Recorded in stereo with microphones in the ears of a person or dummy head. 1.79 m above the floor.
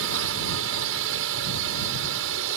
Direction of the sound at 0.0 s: 70° right (ahead or behind).